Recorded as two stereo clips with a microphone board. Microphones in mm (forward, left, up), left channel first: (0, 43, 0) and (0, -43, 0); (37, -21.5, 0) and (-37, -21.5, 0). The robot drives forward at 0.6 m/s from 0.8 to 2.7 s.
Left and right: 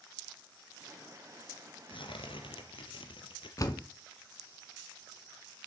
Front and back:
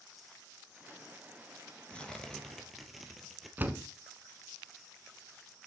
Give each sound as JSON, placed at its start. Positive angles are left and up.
{"t": 1.9, "sound": "tearing paper", "azimuth_deg": 75, "distance_m": 1.8}
{"t": 3.6, "sound": "a door slam", "azimuth_deg": 120, "distance_m": 1.4}